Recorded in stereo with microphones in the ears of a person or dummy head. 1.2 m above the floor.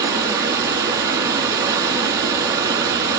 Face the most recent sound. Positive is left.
turn(degrees=-20)  # may be behind; listen again after turning